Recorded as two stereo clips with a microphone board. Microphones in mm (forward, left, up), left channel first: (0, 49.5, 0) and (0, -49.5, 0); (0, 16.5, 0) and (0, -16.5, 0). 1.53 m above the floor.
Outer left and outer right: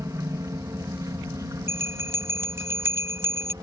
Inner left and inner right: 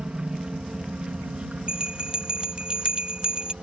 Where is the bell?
25° right (ahead or behind).